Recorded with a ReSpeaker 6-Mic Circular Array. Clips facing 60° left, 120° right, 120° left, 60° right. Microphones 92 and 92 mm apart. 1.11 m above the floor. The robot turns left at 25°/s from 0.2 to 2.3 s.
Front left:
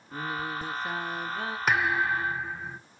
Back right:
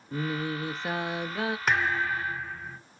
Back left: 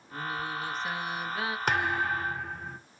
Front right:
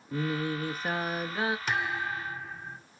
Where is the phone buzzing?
No phone buzzing in this recording.